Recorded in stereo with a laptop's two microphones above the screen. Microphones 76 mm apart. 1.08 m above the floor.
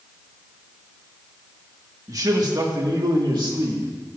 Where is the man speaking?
50° right (ahead or behind), 1.7 m; by 3.9 s 80° right, 2.5 m.